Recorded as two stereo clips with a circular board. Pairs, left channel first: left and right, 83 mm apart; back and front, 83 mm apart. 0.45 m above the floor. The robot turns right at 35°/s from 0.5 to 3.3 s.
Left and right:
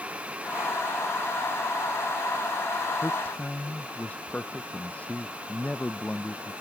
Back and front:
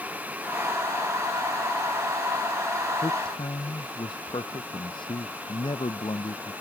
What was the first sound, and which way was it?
A man speaking, 150° left.